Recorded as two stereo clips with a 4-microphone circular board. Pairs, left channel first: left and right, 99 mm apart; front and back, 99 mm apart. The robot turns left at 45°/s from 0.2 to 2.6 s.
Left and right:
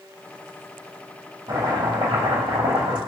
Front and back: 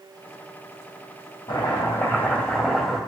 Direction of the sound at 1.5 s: 40° right.